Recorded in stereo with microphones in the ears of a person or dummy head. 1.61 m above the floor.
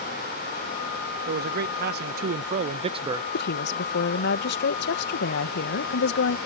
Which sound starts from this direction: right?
A man speaking, at 1.3 s.